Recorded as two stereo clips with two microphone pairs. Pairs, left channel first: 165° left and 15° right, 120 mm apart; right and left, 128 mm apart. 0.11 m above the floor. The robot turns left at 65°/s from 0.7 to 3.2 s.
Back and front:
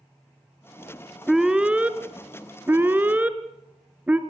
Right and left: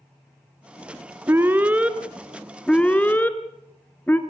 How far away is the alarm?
About 1.4 m.